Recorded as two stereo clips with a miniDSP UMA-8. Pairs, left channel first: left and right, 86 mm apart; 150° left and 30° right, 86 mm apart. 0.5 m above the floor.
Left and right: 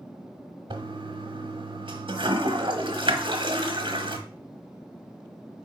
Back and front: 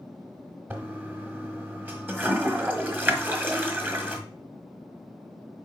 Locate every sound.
0.7 s a toilet flushing: 100° right, 1.1 m